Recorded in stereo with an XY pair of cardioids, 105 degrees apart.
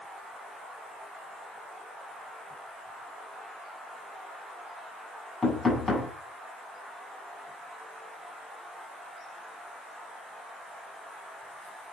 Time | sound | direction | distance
5.4 | knocking | 20° left | 5.5 m